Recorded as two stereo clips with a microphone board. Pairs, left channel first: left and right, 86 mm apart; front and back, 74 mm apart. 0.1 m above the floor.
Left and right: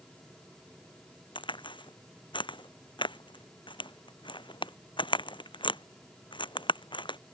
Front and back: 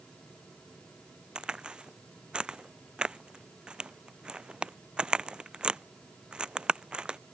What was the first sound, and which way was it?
A crack, 100° left.